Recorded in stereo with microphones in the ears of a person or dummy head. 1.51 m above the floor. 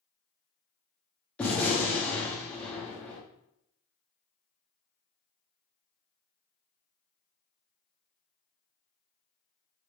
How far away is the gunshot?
About 0.8 m.